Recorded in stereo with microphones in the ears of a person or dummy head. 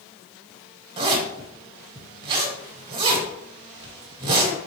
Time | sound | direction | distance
1.0 | a zipper | 30° right (ahead or behind) | 1.2 m